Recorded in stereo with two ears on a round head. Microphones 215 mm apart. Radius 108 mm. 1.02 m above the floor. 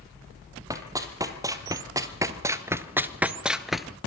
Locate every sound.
0.7 s running footsteps: 15° right (ahead or behind), 2 m; by 4.0 s centre (ahead or behind), 1.1 m